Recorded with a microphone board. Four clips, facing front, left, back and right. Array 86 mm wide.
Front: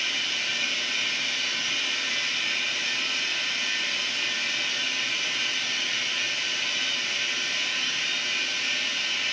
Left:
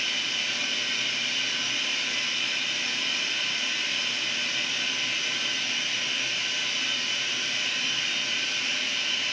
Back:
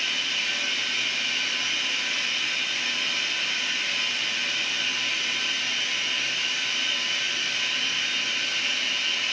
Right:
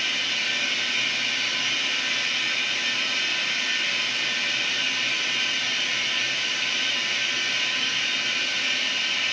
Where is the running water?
115° right, 8 m.